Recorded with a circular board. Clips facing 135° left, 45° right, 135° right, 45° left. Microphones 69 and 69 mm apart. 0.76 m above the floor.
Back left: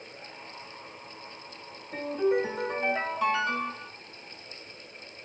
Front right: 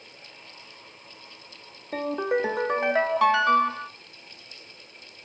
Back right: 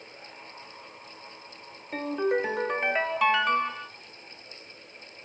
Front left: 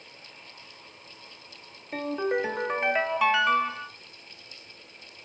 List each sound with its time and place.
1.9 s a ringtone: 45° right, 1.3 m